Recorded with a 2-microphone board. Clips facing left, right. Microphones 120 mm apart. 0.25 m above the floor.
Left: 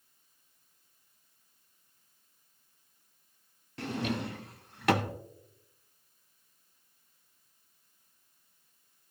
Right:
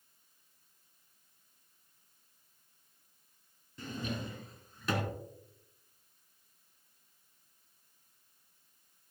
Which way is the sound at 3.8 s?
75° left (ahead or behind).